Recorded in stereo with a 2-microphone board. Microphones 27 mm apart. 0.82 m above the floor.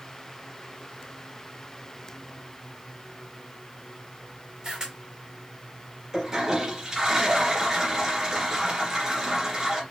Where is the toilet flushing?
20° right (ahead or behind), 1.8 m.